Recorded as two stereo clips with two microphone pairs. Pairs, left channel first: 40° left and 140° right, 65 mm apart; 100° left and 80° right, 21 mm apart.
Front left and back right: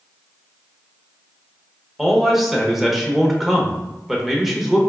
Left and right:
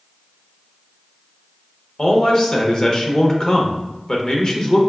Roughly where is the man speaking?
Behind left.